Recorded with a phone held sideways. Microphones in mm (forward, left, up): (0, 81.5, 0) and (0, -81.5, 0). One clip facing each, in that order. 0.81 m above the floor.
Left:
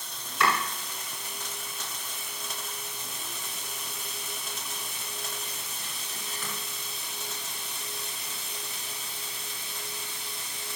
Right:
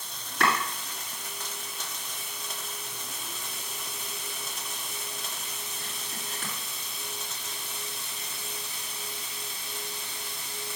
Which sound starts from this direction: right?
Chopping, at 0.4 s.